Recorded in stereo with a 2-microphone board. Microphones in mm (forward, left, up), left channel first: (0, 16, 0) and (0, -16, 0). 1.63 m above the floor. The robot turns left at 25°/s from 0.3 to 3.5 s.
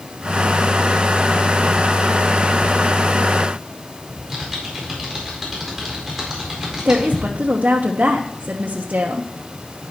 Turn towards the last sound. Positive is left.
turn(degrees=-50)  # may be behind; listen again after turning